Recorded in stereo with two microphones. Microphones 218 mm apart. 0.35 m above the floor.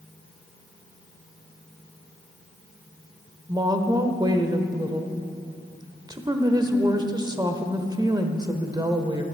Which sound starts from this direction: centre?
A woman speaking, at 3.5 s.